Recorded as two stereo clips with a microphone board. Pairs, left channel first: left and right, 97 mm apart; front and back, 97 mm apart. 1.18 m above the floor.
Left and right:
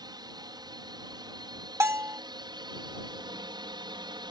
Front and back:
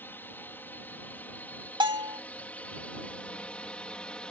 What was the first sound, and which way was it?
A drone, 65° right.